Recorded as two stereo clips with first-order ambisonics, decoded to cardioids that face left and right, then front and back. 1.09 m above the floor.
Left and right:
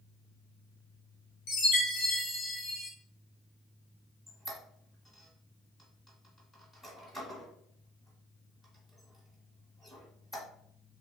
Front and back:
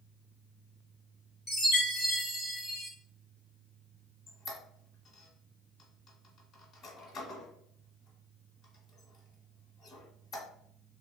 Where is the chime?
85° left, 1.2 m.